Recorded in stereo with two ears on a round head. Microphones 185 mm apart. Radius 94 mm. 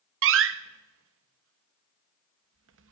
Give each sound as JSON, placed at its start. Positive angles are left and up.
{"t": 0.2, "sound": "a door slam", "side_deg": -70, "distance_m": 0.7}